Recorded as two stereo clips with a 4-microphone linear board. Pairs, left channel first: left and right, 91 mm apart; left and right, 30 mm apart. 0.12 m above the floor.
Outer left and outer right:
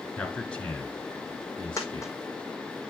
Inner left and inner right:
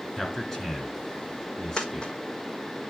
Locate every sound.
0.2 s a man speaking: 15° left (ahead or behind), 1.7 m
1.8 s a dropped coin: 35° left (ahead or behind), 1.3 m